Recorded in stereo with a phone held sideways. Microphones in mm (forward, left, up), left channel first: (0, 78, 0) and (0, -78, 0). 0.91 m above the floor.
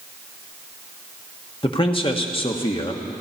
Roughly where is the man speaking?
Left.